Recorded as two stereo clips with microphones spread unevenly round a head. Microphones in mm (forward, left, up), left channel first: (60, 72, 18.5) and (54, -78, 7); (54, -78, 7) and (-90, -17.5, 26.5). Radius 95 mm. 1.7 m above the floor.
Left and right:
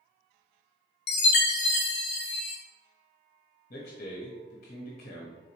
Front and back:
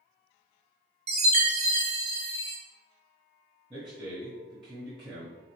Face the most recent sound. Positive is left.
turn(degrees=75)